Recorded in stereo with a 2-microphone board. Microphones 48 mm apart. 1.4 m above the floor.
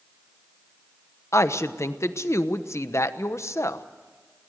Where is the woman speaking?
70° left (ahead or behind), 1.0 m.